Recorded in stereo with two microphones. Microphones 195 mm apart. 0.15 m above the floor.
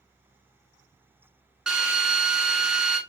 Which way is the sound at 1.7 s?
5° right (ahead or behind).